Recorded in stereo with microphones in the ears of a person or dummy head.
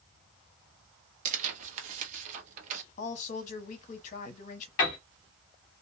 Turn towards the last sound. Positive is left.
turn(degrees=25)  # may be behind; listen again after turning